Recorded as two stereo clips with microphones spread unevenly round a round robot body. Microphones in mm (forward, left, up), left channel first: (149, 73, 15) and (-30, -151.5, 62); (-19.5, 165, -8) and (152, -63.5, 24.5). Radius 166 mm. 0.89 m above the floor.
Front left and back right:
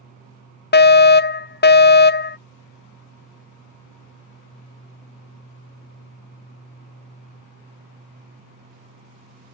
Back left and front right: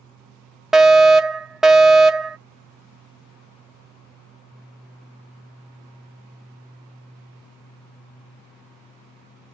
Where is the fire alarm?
40° left.